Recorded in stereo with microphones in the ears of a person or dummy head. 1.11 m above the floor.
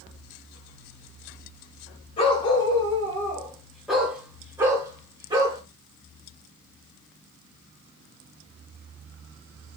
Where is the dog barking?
35° left (ahead or behind), 1.7 m; by 5.6 s 25° right (ahead or behind), 2 m.